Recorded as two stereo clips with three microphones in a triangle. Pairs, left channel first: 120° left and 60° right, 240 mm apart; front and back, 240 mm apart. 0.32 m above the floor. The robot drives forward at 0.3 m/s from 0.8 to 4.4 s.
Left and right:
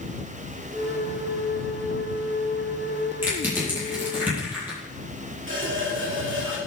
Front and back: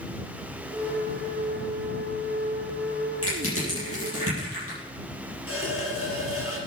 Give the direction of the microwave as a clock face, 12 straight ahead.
No microwave in this recording.